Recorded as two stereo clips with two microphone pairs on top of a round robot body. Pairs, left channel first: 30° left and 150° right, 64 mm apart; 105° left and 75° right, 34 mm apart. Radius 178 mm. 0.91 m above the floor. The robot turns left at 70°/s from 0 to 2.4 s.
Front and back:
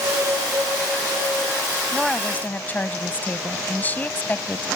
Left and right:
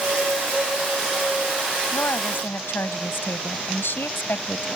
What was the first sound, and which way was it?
A woman speaking, 130° left.